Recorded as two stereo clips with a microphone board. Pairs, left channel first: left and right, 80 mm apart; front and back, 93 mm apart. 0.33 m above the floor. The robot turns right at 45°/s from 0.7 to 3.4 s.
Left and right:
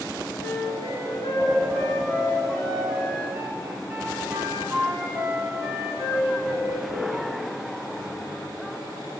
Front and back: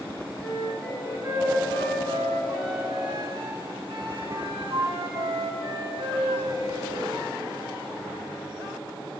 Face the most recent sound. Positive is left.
turn(degrees=-150)